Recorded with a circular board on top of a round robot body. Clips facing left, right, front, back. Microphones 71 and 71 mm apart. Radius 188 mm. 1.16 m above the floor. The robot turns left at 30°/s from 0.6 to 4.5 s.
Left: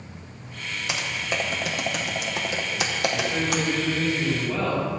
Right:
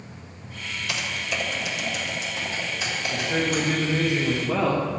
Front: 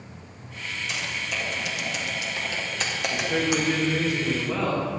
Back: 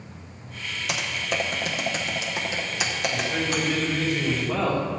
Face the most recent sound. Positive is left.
turn(degrees=-85)